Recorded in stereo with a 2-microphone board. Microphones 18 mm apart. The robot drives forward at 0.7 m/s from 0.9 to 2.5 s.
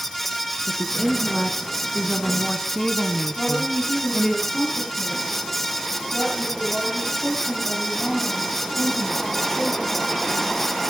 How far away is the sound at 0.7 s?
About 1.4 m.